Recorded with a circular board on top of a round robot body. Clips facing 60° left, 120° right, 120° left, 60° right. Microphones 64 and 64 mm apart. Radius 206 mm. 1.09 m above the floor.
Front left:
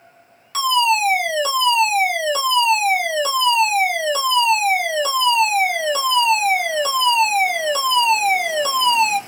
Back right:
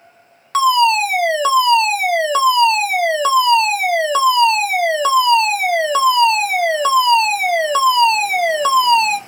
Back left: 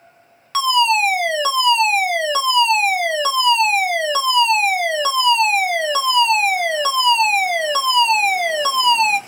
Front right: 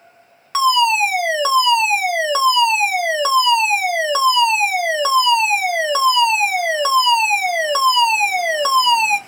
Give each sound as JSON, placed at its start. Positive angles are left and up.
{"t": 0.5, "sound": "a fire alarm", "azimuth_deg": -135, "distance_m": 1.7}